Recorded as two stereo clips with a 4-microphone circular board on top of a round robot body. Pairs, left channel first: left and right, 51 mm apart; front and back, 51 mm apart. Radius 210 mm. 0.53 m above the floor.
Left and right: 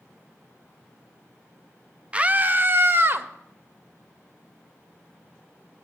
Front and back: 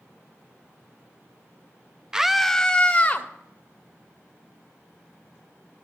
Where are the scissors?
I don't hear scissors.